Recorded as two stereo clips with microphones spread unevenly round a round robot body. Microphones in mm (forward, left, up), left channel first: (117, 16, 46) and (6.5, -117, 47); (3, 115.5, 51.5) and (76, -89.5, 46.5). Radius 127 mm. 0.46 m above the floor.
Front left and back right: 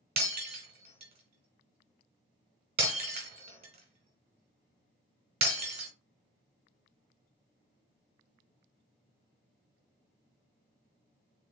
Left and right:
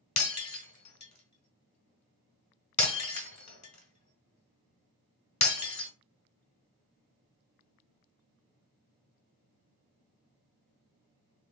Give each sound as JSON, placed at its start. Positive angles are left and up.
{"t": 0.2, "sound": "breaking glass", "azimuth_deg": 170, "distance_m": 1.3}